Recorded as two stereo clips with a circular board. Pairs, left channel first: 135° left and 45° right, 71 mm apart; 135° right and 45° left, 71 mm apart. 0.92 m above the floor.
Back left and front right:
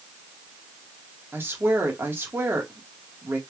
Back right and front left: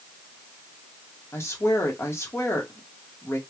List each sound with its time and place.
1.3 s a woman speaking: 95° right, 1.3 m